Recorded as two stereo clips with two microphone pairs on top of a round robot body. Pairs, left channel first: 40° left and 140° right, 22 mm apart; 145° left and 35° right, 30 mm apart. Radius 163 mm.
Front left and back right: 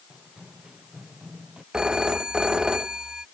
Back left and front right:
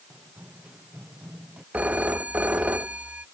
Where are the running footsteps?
85° right; by 1.6 s 90° right.